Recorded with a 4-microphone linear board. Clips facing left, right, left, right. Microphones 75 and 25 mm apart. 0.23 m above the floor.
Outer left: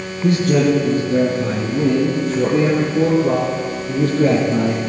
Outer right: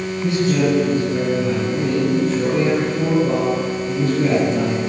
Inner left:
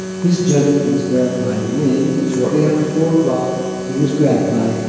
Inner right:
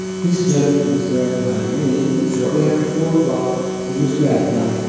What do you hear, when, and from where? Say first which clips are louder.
0.2 s a man speaking: outer left 3 dB, inner left 2 dB; 45° left (ahead or behind), 3 m; by 4.8 s 30° left (ahead or behind), 5 m